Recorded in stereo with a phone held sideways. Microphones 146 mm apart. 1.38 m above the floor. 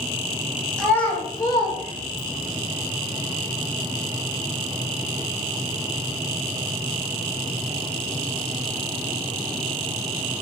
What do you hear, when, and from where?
0.8 s a child speaking: 5° left (ahead or behind), 0.7 m; by 2.5 s 65° left (ahead or behind), 0.8 m